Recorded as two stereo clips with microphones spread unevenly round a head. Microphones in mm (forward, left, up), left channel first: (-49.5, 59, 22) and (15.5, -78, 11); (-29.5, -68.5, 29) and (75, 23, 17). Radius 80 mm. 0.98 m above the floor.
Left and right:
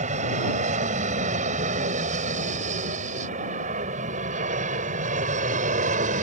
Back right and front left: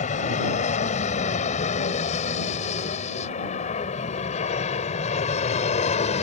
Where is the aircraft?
105° right; by 6.2 s 100° right.